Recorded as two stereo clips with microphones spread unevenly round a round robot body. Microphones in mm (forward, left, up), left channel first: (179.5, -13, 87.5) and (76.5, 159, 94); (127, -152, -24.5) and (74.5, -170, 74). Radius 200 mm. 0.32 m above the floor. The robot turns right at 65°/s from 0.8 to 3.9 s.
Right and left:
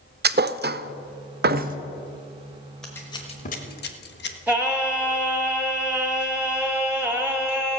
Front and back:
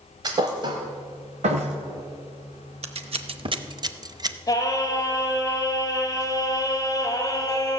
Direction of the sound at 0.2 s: 95° left.